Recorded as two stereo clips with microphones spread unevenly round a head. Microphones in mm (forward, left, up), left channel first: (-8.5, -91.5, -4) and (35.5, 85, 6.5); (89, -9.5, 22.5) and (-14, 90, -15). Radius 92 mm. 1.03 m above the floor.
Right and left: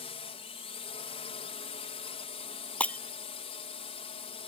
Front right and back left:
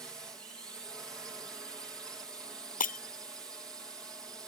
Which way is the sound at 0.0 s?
145° right.